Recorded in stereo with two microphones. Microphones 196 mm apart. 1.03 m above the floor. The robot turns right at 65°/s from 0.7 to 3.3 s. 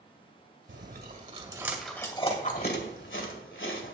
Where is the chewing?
70° right (ahead or behind), 1.9 m; by 4.0 s 75° left (ahead or behind), 1.9 m.